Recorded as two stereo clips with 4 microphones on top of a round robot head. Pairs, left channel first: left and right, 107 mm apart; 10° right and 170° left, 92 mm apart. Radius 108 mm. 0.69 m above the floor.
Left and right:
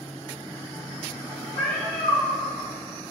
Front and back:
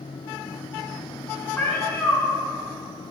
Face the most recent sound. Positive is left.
turn(degrees=55)